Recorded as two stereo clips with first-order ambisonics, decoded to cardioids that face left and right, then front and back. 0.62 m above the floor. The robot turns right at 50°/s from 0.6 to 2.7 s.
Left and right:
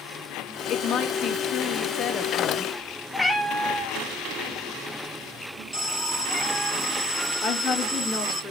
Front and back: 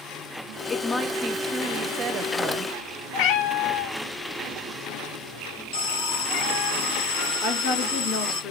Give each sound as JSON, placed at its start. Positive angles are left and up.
{"t": 0.7, "sound": "a woman speaking", "azimuth_deg": 75, "distance_m": 0.7}
{"t": 3.1, "sound": "a cat meowing", "azimuth_deg": 5, "distance_m": 1.0}
{"t": 5.7, "sound": "an alarm", "azimuth_deg": -5, "distance_m": 5.0}
{"t": 7.4, "sound": "a woman speaking", "azimuth_deg": 25, "distance_m": 1.6}